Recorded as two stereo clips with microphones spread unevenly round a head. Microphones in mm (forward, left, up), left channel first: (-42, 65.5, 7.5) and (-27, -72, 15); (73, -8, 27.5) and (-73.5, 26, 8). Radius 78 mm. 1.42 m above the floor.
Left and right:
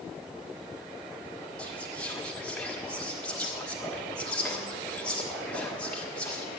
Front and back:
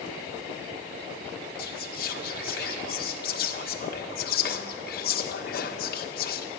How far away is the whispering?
About 1.4 m.